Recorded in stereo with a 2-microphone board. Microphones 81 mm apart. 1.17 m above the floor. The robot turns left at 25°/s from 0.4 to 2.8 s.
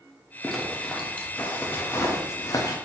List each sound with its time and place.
0.4 s a zipper: centre (ahead or behind), 0.6 m; by 2.8 s 50° left (ahead or behind), 0.6 m